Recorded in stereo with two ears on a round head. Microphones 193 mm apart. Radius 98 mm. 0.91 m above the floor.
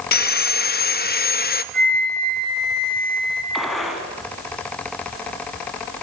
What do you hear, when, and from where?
0.1 s sawing: 45° left (ahead or behind), 1.0 m
1.7 s a flute: 5° left (ahead or behind), 6 m
3.5 s a gunshot: centre (ahead or behind), 4.5 m